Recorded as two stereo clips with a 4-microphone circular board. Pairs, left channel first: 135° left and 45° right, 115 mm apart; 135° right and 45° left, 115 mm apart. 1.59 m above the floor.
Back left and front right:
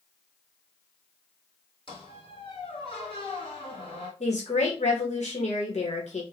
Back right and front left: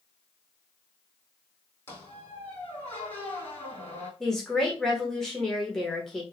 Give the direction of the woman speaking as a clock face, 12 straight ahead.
7 o'clock.